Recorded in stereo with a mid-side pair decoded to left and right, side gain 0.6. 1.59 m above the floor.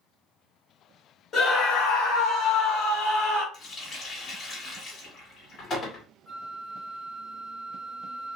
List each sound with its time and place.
1.3 s a scream: 45° left, 1.6 m; by 3.4 s 60° left, 3.5 m
3.5 s a running tap: 40° left, 1.8 m
6.3 s a flute: 5° left, 0.8 m